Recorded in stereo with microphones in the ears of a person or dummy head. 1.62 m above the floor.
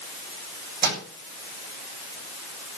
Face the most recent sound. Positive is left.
turn(degrees=-45)  # may be behind; listen again after turning